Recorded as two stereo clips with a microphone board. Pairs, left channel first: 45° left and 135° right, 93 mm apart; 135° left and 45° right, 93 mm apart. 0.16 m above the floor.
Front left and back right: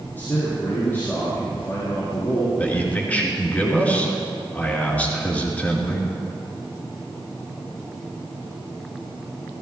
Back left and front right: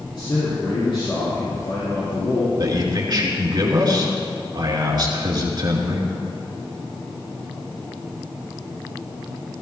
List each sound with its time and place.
0.1 s a man speaking: 110° left, 5 m
2.6 s a man speaking: 25° right, 2.5 m